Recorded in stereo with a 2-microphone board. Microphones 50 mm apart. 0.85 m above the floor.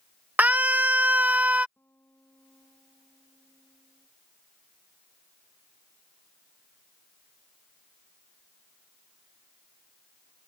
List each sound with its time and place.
0.4 s a scream: 35° right (ahead or behind); by 1.7 s 30° right (ahead or behind)
1.8 s a guitar: 50° left (ahead or behind)